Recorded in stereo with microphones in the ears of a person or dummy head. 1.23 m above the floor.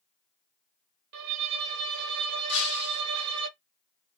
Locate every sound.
1.1 s a violin: 60° right (ahead or behind), 0.6 m
2.5 s breaking glass: 75° left (ahead or behind), 3 m